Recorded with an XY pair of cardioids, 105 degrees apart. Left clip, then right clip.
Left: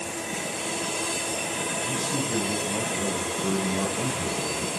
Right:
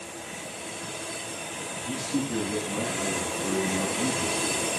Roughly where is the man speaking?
Ahead left.